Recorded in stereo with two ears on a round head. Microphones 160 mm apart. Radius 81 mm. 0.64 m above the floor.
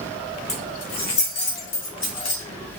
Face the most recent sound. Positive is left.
turn(degrees=75)  # may be behind; listen again after turning